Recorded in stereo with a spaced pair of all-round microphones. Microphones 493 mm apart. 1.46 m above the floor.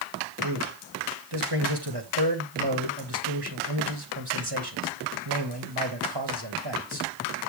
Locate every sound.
0.4 s a man speaking: 50° right (ahead or behind), 2.5 m